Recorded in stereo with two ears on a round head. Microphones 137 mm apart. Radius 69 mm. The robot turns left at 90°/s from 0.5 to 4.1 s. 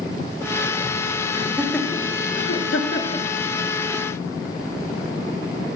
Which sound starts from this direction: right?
Laughter, at 1.3 s.